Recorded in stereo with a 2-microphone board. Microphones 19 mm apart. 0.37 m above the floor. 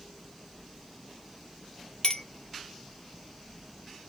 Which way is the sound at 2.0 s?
45° left (ahead or behind).